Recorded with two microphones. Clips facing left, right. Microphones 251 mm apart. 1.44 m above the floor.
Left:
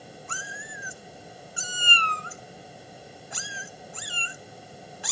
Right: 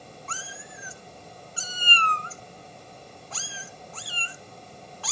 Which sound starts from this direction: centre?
A cat meowing, at 0.3 s.